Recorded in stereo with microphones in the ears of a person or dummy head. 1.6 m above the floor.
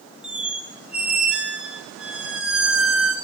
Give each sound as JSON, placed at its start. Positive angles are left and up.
{"t": 0.2, "sound": "a squeak", "side_deg": -5, "distance_m": 2.5}